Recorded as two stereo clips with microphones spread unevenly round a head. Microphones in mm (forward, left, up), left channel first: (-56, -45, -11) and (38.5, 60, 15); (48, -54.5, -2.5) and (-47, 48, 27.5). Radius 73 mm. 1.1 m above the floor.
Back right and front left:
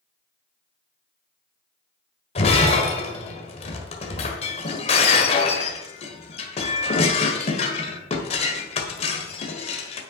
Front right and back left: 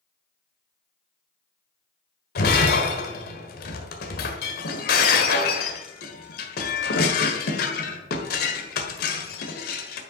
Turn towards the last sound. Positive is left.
turn(degrees=-75)